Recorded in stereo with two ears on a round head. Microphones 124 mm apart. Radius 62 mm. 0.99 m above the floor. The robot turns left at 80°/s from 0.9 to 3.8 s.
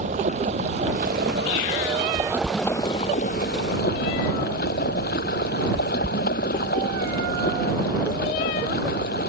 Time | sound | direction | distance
0.0 | running water | 50° right | ?